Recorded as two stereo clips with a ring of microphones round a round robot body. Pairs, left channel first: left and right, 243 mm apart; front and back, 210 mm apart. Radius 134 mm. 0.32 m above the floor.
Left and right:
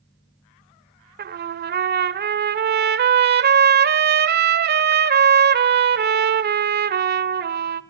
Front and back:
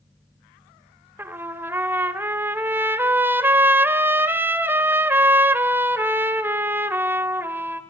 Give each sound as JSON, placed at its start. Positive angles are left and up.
{"t": 1.2, "sound": "a trumpet", "azimuth_deg": -105, "distance_m": 1.2}